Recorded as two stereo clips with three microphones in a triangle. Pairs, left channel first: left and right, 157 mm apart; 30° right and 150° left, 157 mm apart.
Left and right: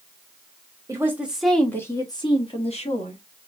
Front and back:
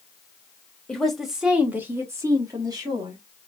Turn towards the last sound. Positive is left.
turn(degrees=95)